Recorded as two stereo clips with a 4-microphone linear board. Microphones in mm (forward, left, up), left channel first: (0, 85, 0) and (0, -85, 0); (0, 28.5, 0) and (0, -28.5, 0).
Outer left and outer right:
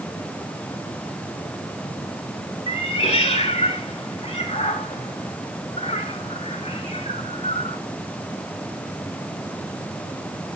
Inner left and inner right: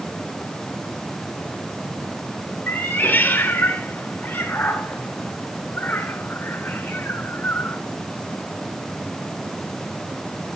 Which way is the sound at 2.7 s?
40° left (ahead or behind).